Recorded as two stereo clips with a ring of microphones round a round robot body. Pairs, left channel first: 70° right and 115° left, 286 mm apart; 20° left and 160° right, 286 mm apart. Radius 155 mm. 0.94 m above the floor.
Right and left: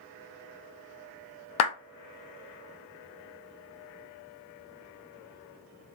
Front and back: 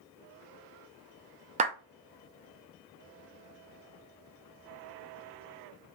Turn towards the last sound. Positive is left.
turn(degrees=-90)